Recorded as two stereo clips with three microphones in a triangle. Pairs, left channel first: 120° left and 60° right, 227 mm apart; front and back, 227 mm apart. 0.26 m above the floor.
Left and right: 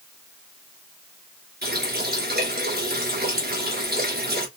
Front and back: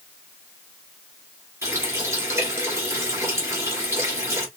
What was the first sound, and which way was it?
A running tap, 100° right.